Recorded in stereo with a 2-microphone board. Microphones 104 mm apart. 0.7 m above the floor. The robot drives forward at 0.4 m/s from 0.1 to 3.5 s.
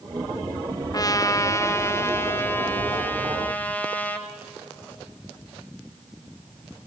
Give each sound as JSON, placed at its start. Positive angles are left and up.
{"t": 0.9, "sound": "a trumpet", "side_deg": 35, "distance_m": 0.9}